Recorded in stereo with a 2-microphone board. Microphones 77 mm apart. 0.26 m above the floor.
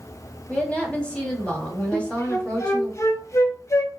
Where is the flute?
40° left (ahead or behind), 0.7 m.